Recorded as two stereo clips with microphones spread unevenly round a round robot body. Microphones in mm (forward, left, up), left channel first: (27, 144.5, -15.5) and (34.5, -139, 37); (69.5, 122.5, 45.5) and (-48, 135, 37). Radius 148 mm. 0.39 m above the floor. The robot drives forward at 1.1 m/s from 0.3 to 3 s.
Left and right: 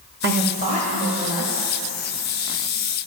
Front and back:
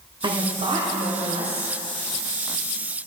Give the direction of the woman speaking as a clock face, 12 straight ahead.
5 o'clock.